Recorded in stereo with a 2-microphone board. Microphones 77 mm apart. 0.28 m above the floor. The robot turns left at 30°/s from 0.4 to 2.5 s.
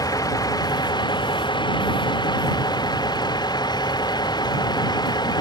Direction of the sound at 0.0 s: 125° left.